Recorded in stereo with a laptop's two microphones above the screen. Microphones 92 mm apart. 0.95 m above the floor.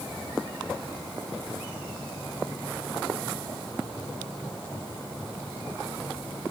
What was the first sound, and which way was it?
Only background noise.